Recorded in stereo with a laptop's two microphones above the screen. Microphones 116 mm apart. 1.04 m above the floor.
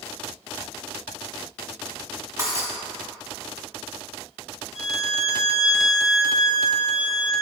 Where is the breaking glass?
30° right (ahead or behind), 1.4 m.